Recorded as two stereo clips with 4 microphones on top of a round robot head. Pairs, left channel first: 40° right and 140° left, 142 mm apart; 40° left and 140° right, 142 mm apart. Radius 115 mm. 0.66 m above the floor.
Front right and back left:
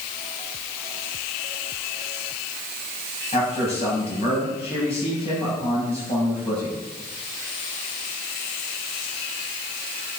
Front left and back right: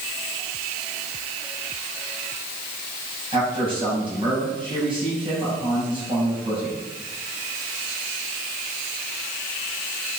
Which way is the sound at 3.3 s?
85° right.